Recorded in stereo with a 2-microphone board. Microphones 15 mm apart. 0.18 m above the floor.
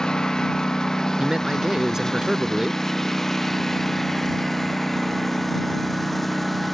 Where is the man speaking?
35° right (ahead or behind).